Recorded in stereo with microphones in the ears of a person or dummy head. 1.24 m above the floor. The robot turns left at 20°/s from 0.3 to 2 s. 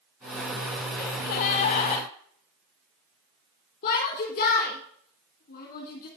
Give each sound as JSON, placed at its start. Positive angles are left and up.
{"t": 1.0, "sound": "a gasp", "side_deg": 50, "distance_m": 3.5}
{"t": 3.8, "sound": "a shout", "side_deg": 45, "distance_m": 2.5}